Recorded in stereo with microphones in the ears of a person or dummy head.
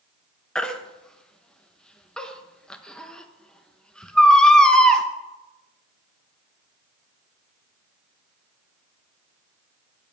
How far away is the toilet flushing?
I don't hear a toilet flushing.